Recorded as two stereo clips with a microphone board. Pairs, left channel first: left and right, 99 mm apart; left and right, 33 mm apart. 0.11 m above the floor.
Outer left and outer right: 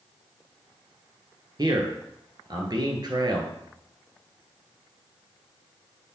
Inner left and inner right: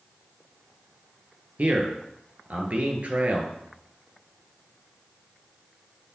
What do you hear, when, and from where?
1.6 s a man speaking: 45° right (ahead or behind), 1.4 m